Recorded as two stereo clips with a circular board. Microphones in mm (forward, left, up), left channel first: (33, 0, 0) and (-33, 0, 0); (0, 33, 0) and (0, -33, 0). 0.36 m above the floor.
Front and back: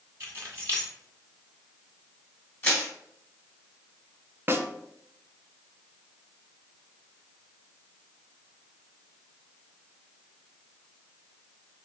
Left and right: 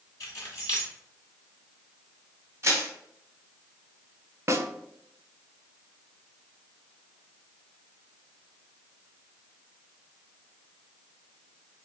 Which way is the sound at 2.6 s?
50° right.